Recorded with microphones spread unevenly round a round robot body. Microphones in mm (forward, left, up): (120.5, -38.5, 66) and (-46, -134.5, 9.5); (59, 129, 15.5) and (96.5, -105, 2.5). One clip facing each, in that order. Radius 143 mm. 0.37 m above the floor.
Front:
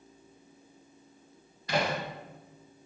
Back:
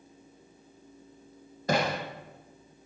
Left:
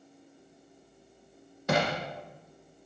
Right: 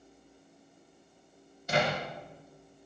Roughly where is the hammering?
Behind left.